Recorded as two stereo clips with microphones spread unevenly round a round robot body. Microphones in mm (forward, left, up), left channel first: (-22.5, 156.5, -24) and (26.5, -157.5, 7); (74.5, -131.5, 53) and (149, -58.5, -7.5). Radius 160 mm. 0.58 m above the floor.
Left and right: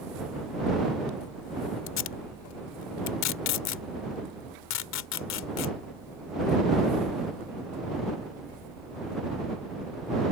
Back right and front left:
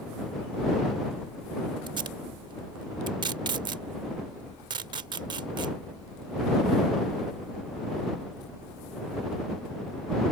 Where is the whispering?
No whispering in this recording.